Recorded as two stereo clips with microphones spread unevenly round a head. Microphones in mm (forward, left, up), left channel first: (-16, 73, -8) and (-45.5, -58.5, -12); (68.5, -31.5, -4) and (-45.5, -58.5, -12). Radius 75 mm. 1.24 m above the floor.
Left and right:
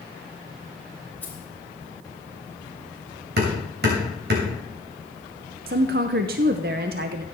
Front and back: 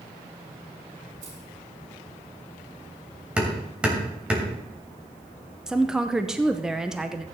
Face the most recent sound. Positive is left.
turn(degrees=-85)